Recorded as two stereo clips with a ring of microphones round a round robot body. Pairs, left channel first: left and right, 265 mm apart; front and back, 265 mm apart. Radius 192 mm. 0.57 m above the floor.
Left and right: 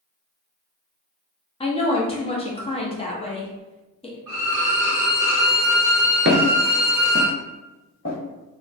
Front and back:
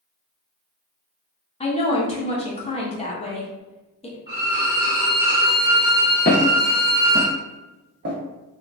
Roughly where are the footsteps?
Ahead right.